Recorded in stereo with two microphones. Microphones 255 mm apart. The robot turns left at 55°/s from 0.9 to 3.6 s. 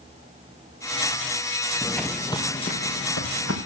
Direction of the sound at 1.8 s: 5° left (ahead or behind).